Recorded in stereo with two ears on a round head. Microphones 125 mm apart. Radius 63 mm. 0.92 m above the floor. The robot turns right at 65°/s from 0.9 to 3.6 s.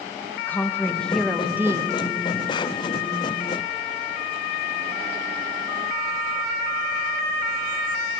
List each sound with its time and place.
0.4 s a woman speaking: 160° left, 1.0 m; by 2.0 s 135° right, 1.0 m